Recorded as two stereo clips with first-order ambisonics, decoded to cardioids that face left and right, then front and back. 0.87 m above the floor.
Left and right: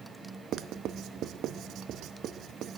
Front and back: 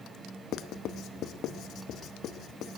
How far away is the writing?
About 0.6 m.